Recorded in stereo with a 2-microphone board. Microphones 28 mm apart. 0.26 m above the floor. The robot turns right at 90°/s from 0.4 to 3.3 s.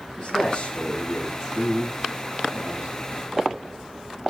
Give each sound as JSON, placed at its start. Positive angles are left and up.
{"t": 0.2, "sound": "a man speaking", "azimuth_deg": 115, "distance_m": 8.0}